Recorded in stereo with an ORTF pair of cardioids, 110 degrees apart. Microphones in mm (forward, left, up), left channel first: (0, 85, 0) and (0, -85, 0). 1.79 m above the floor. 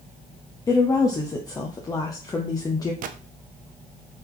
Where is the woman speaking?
20° left, 0.7 m.